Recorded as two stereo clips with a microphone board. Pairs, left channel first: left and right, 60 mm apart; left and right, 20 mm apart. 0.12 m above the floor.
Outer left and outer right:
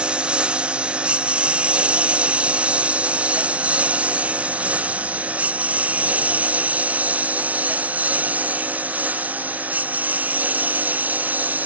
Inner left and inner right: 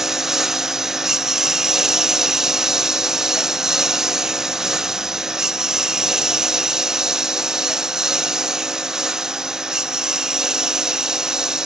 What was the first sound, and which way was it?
A lawn mower, 15° right (ahead or behind).